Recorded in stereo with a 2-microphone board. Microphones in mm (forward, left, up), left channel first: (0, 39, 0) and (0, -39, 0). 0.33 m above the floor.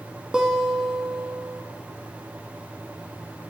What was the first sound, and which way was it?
A guitar, 10° right (ahead or behind).